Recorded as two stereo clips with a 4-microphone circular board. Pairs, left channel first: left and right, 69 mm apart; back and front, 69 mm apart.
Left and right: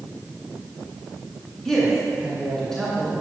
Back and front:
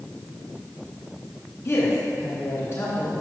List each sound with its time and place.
1.6 s a woman speaking: 170° left, 2 m